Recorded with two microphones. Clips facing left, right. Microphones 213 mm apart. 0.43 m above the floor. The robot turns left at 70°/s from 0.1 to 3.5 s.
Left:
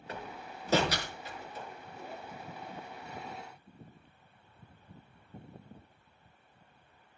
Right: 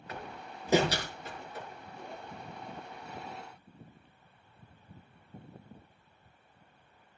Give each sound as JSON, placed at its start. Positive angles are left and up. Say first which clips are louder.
{"t": 0.1, "sound": "a door slam", "louder": "left 1 dB", "side_deg": 30, "distance_m": 5.5}